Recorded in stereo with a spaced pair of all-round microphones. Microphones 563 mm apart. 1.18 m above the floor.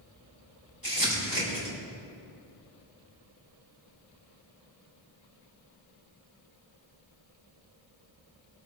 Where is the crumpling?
35° right (ahead or behind), 5 m.